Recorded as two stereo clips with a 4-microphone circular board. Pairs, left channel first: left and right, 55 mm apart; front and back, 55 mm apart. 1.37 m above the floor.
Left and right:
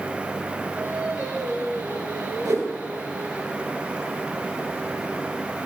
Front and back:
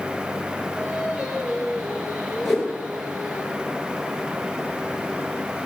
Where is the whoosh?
85° right, 8 m.